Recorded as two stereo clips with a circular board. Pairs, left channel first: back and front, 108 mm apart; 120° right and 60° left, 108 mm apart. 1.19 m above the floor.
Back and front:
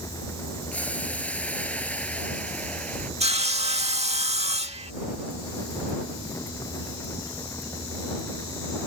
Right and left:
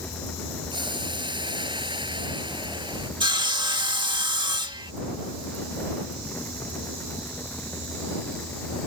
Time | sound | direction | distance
0.7 | boiling | 105° left | ?
3.2 | sawing | 15° left | ?